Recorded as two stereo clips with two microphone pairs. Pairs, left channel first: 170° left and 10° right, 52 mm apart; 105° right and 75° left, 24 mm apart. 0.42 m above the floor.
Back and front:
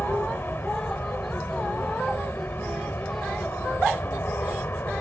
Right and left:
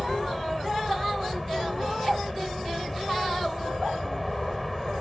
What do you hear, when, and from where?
0.0 s an aircraft: 165° left